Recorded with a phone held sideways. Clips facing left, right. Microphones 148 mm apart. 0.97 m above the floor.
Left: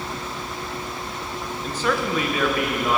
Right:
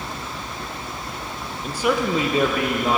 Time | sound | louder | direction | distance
1.6 | a man speaking | right 3 dB | 10° right (ahead or behind) | 0.6 m